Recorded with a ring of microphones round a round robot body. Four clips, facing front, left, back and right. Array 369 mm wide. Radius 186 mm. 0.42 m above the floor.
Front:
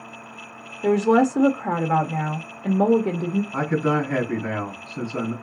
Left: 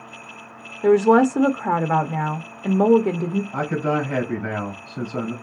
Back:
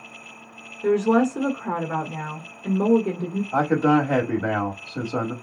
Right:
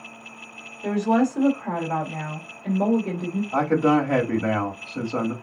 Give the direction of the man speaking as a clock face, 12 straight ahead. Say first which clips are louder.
Right 7 dB, back 6 dB; 5 o'clock.